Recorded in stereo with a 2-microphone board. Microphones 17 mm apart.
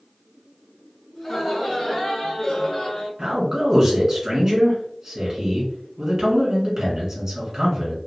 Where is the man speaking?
40° right (ahead or behind), 1.9 m.